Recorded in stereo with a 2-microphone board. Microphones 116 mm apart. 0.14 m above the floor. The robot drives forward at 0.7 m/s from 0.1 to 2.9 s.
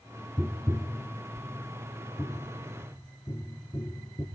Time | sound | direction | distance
0.4 | tapping | 10° right (ahead or behind) | 0.7 m